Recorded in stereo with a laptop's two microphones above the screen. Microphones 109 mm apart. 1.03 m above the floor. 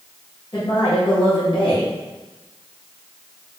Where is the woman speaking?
45° left (ahead or behind), 0.9 m.